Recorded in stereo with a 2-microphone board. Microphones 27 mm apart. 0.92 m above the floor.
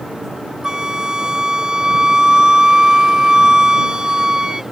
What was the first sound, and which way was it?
A flute, 30° right (ahead or behind).